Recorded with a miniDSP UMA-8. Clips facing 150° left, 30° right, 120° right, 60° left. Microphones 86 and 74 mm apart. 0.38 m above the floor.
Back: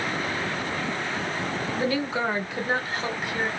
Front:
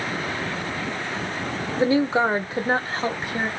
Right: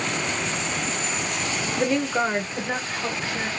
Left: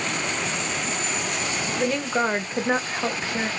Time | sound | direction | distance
1.8 | a woman speaking | 45° right | 0.9 m